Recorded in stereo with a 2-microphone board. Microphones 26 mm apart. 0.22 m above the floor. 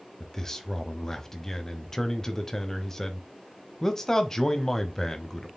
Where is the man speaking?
20° left (ahead or behind), 1.0 m.